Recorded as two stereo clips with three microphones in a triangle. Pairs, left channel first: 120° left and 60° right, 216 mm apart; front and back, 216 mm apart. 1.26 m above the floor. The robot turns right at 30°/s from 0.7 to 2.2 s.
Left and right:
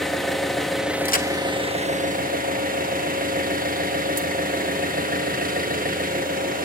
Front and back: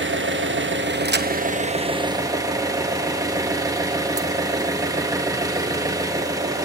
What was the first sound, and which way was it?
An engine running, 150° right.